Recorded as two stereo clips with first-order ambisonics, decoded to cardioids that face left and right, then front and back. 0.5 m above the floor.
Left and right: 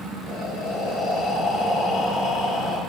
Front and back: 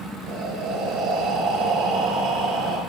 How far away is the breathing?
About 4 m.